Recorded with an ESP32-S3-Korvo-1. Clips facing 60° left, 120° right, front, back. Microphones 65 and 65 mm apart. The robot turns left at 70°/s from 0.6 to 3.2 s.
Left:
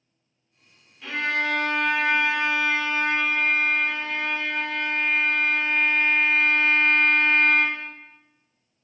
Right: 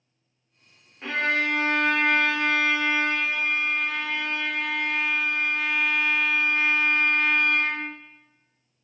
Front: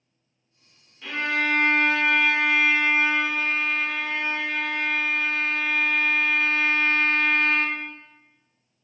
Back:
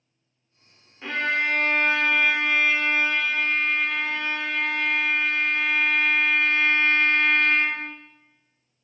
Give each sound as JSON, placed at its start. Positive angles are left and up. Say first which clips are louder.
{"t": 1.0, "sound": "a violin", "louder": "right 1 dB, back 1 dB", "azimuth_deg": -145, "distance_m": 0.5}